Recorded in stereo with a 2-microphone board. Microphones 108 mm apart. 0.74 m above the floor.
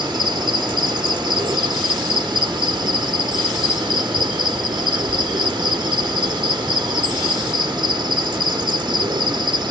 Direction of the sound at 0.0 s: 45° right (ahead or behind).